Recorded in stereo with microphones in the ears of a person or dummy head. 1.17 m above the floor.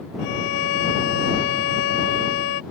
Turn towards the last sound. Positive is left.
turn(degrees=70)  # may be behind; listen again after turning